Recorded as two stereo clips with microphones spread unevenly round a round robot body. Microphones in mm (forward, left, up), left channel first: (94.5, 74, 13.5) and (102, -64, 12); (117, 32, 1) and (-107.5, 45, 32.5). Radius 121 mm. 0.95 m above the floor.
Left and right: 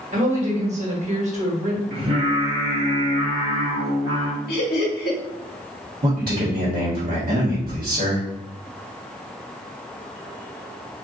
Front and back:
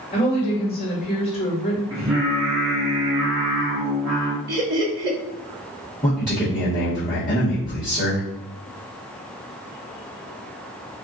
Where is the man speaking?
80° right, 1.2 m.